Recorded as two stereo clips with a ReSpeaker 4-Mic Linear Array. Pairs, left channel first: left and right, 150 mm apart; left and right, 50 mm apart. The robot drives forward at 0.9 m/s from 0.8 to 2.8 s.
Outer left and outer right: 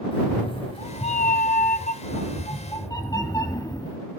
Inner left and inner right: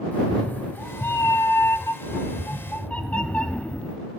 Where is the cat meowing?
40° left (ahead or behind), 0.9 m; by 4.0 s 25° left (ahead or behind), 1.3 m.